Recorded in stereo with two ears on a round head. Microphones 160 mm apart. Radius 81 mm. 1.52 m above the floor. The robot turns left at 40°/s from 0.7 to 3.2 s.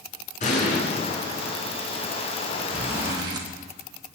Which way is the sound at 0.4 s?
45° left (ahead or behind).